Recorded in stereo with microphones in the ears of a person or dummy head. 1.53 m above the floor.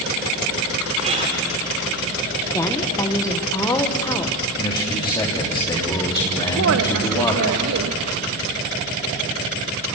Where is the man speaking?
25° left (ahead or behind), 3 m.